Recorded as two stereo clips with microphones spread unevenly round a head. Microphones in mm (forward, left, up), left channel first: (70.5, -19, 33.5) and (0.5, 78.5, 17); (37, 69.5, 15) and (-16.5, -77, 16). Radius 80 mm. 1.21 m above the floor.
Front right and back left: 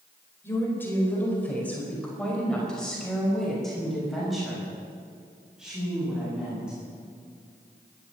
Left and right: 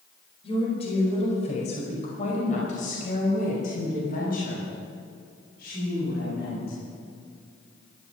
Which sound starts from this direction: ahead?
A woman speaking, at 0.4 s.